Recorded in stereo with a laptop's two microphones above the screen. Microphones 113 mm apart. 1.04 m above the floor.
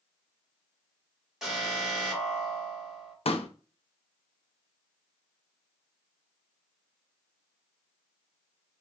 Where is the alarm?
5° right (ahead or behind), 2.5 m.